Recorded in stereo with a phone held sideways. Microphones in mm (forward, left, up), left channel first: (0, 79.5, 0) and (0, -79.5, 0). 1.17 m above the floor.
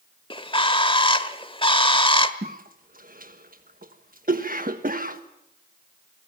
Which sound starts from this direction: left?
A bird, at 0.3 s.